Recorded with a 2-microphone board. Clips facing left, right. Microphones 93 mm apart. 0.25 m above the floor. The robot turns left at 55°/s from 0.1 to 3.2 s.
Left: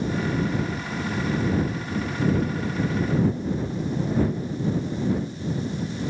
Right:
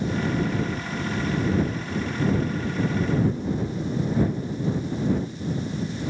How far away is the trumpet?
No trumpet in this recording.